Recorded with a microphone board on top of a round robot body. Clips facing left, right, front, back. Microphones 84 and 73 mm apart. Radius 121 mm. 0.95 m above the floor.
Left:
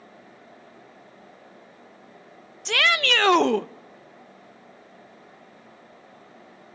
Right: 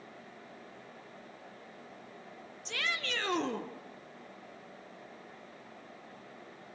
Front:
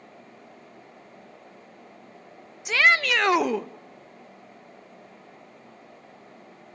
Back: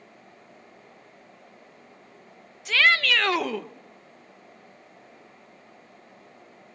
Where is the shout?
75° left, 0.6 m.